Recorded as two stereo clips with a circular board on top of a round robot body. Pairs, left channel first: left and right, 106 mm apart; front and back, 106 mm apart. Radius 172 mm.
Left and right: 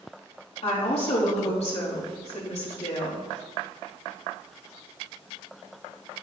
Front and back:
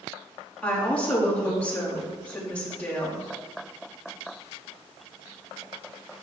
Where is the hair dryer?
I don't hear a hair dryer.